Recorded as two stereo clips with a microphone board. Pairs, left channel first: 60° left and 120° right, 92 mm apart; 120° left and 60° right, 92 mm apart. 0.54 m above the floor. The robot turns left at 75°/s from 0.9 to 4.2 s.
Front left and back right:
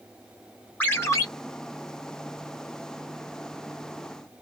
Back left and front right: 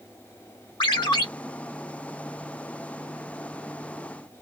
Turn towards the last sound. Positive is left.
turn(degrees=-120)